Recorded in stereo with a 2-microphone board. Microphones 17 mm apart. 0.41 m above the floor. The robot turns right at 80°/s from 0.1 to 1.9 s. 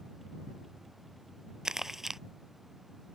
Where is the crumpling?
40° right (ahead or behind); by 2.2 s 20° right (ahead or behind).